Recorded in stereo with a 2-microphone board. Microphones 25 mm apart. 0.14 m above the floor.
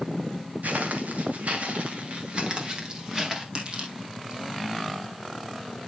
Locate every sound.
0.6 s footsteps: 75° right (ahead or behind), 3 m; by 3.5 s 20° right (ahead or behind), 3.5 m
3.5 s crushing: 45° right (ahead or behind), 4 m